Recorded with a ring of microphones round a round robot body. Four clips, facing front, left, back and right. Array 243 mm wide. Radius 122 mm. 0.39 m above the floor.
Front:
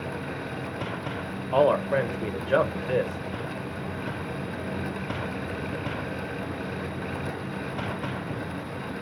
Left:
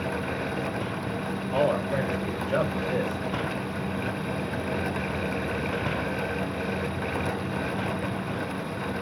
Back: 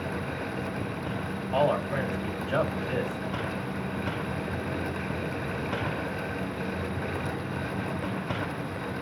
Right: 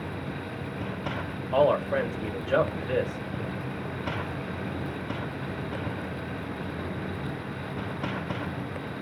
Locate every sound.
1.5 s a man speaking: 15° right, 1.3 m